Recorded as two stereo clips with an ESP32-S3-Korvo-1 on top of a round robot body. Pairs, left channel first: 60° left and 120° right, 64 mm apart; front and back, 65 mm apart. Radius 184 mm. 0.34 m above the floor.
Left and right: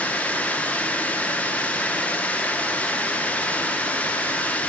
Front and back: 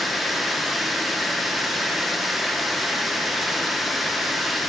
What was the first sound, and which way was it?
Running water, 90° left.